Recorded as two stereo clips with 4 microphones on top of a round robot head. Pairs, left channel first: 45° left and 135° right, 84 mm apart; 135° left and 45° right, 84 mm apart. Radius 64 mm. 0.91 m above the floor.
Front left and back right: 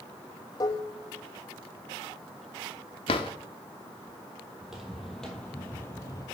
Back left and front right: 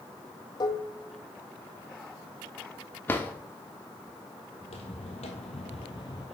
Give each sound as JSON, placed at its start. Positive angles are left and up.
{"t": 0.6, "sound": "dishes clattering", "azimuth_deg": 90, "distance_m": 0.7}
{"t": 3.1, "sound": "a drawer", "azimuth_deg": 65, "distance_m": 0.7}
{"t": 4.6, "sound": "footsteps", "azimuth_deg": 140, "distance_m": 1.8}